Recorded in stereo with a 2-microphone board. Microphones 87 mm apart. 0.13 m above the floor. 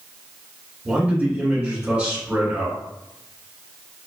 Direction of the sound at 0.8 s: 15° right (ahead or behind).